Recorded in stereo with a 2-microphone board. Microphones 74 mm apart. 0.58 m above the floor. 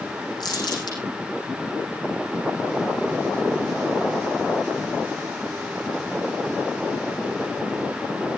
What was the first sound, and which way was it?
Crumpling, 70° left (ahead or behind).